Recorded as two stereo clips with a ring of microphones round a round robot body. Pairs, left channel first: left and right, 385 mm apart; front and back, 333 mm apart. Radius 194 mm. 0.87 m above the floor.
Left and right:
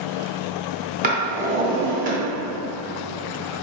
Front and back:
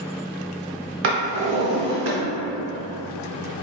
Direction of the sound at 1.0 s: 150° right.